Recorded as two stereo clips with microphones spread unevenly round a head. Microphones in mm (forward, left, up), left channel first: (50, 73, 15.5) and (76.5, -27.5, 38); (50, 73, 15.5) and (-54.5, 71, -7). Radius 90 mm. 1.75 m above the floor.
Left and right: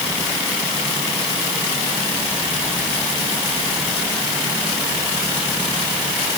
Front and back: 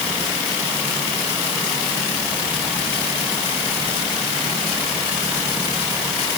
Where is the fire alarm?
No fire alarm in this recording.